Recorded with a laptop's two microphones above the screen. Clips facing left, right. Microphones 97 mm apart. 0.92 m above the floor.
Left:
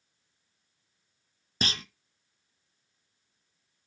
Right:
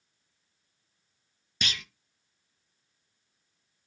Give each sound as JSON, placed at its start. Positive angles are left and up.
{"t": 1.6, "sound": "a clunk", "side_deg": 35, "distance_m": 0.7}